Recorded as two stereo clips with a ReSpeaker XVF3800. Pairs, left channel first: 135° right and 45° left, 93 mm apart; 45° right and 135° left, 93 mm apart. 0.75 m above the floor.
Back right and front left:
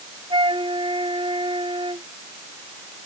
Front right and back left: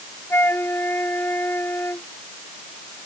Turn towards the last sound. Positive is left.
turn(degrees=20)